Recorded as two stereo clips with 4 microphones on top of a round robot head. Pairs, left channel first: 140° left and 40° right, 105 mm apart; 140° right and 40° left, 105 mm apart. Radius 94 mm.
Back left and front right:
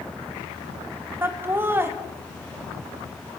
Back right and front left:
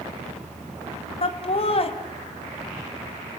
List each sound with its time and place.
1.2 s laughter: 110° right, 1.8 m